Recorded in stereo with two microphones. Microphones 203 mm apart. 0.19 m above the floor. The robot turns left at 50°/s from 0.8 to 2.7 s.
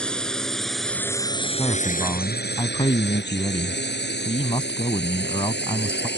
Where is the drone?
5° left (ahead or behind); by 6.2 s 65° left (ahead or behind).